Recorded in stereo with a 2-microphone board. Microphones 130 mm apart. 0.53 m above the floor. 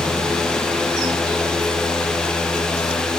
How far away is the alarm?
I don't hear an alarm.